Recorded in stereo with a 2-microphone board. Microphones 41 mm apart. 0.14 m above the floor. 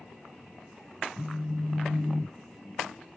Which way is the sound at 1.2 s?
50° left (ahead or behind).